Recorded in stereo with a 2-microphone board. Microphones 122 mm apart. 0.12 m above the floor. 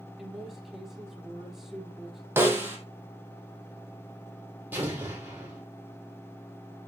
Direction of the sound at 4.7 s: 15° right (ahead or behind).